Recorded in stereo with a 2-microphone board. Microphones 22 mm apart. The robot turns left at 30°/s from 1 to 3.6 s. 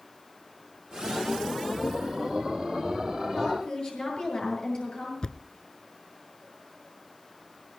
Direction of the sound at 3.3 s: 45° left (ahead or behind).